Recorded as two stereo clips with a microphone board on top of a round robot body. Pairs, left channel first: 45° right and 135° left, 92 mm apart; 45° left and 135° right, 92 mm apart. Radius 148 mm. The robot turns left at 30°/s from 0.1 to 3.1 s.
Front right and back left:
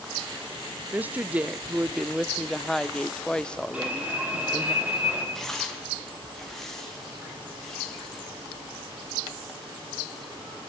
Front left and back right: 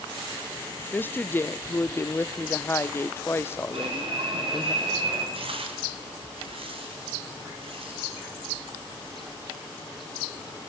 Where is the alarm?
150° right, 6 m.